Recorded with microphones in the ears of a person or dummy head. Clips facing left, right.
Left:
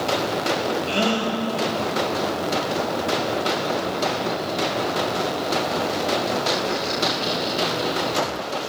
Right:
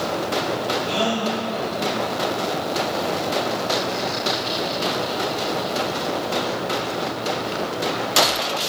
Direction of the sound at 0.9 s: 30° left (ahead or behind).